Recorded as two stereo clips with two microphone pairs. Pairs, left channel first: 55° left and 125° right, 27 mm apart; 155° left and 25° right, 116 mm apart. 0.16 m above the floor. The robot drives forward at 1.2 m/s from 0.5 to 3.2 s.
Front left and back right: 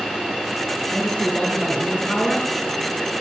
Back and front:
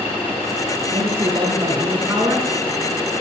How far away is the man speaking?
About 3 m.